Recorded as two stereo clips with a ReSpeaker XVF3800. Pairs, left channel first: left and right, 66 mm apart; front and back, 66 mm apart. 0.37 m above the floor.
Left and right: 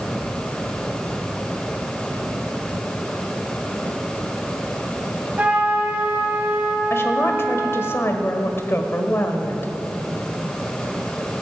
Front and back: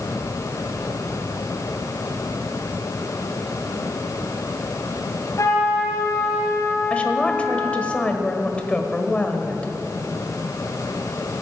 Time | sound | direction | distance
5.4 | a trumpet | 25° right | 2.0 m
6.9 | a woman speaking | 65° left | 1.3 m